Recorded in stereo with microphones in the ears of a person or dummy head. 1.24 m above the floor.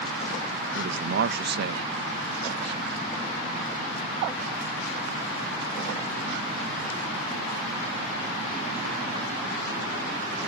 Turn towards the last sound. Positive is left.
turn(degrees=-65)  # may be behind; listen again after turning